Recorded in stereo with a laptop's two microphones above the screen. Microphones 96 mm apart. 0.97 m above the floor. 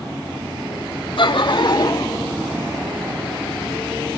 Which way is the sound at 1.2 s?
60° left (ahead or behind).